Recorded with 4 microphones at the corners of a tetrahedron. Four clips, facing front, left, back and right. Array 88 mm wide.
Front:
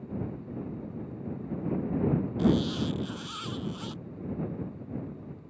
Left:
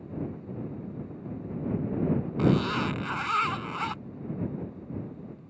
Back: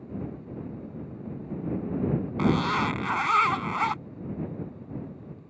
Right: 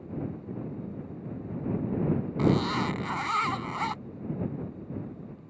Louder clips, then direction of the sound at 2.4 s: Even, back 3 dB; 175° right.